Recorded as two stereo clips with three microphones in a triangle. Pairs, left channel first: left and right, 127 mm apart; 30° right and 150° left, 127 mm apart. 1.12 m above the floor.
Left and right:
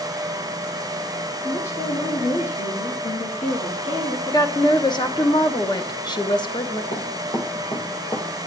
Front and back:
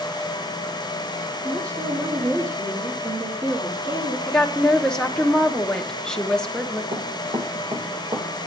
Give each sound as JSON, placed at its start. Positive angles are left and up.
{"t": 1.4, "sound": "a woman speaking", "azimuth_deg": 90, "distance_m": 1.8}
{"t": 4.3, "sound": "a woman speaking", "azimuth_deg": 50, "distance_m": 0.9}
{"t": 6.9, "sound": "running footsteps", "azimuth_deg": 115, "distance_m": 2.5}